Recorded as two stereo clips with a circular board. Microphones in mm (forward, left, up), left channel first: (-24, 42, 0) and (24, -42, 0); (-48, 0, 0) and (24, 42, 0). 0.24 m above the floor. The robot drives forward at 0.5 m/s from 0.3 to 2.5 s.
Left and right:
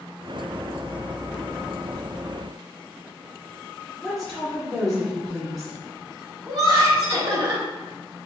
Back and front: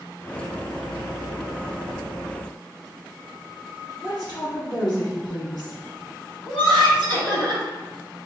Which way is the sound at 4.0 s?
150° right.